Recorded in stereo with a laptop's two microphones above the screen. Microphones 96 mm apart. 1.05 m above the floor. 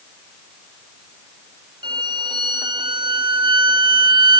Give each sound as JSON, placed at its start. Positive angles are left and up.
{"t": 1.8, "sound": "a violin", "side_deg": -50, "distance_m": 0.9}